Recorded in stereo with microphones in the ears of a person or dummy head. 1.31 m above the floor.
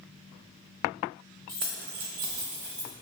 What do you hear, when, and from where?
1.5 s keys jangling: 15° right (ahead or behind), 0.6 m; by 2.9 s 65° right (ahead or behind), 1.6 m